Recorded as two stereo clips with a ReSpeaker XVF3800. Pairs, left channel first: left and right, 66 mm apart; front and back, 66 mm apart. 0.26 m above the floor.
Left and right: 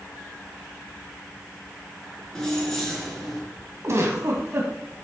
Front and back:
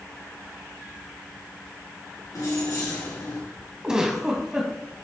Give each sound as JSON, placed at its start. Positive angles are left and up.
{"t": 2.4, "sound": "keys jangling", "azimuth_deg": 10, "distance_m": 3.0}
{"t": 3.8, "sound": "a giggle", "azimuth_deg": -105, "distance_m": 1.9}